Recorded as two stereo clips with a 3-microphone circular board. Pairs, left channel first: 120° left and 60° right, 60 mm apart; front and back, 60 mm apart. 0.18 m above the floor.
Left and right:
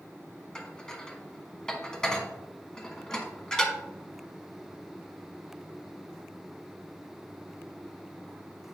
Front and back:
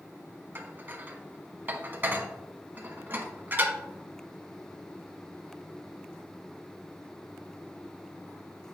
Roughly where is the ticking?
No ticking in this recording.